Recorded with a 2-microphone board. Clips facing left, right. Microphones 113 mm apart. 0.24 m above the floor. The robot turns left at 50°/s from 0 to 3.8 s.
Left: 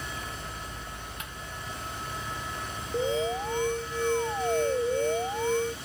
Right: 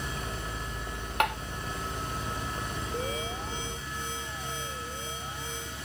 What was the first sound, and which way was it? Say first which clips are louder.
Tapping: right 16 dB; 70° right (ahead or behind).